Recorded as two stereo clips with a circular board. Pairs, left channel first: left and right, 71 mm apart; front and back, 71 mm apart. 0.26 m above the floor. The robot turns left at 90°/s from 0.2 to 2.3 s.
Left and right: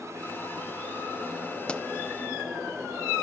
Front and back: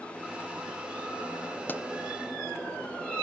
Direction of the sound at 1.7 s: 30° left.